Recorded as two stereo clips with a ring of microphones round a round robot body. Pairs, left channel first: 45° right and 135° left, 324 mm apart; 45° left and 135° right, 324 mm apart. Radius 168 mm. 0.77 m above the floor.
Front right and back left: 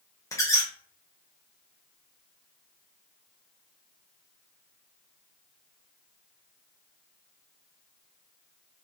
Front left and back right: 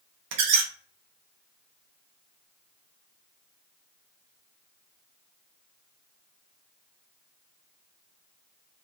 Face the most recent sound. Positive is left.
turn(degrees=-125)